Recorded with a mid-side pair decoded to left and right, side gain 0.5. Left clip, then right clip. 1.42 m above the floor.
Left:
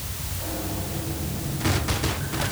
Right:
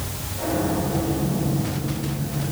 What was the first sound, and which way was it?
Only background noise.